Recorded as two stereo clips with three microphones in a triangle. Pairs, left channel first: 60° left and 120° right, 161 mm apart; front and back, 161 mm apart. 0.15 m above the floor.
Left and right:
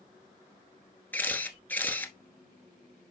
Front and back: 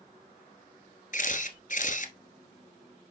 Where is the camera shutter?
15° right, 1.0 m.